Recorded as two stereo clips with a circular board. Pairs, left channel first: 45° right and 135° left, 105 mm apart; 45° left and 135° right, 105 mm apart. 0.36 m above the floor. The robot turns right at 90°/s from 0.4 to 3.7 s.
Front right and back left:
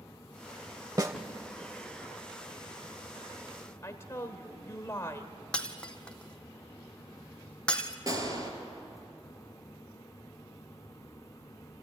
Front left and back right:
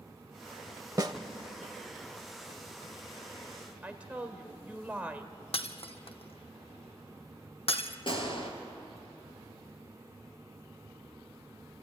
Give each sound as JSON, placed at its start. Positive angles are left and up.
{"t": 1.0, "sound": "a snare drum", "azimuth_deg": 180, "distance_m": 0.9}
{"t": 3.8, "sound": "a woman speaking", "azimuth_deg": -75, "distance_m": 1.5}
{"t": 5.5, "sound": "breaking glass", "azimuth_deg": 35, "distance_m": 1.1}
{"t": 8.1, "sound": "a gunshot", "azimuth_deg": 80, "distance_m": 2.5}